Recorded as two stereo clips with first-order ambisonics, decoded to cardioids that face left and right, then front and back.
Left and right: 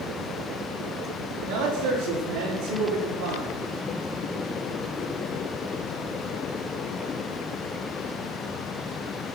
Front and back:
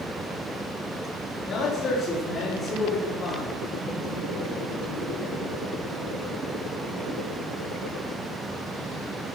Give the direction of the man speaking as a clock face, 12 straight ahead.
2 o'clock.